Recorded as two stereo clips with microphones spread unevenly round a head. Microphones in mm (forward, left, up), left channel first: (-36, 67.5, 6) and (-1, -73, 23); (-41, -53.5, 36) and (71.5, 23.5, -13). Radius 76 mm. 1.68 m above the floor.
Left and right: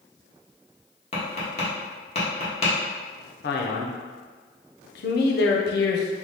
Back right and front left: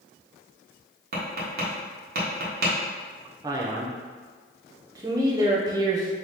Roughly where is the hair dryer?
I don't hear a hair dryer.